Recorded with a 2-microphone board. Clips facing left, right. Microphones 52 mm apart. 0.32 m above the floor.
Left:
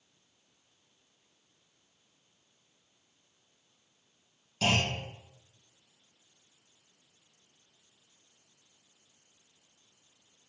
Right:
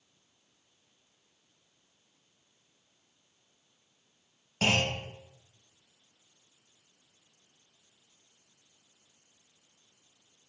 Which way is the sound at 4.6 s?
45° right (ahead or behind).